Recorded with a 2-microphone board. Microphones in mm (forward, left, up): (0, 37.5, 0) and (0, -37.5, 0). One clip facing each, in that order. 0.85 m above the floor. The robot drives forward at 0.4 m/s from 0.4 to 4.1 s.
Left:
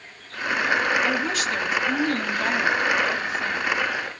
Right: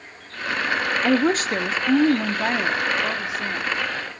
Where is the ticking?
No ticking in this recording.